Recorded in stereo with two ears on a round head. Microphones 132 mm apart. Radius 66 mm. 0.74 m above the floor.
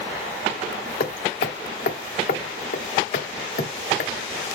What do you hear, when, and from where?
1.0 s hammering: 60° left (ahead or behind), 1.2 m